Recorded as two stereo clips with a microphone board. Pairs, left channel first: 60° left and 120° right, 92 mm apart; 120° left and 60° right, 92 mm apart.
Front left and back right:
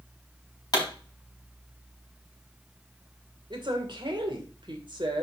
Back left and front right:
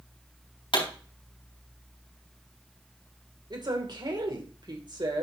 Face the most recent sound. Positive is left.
turn(degrees=-95)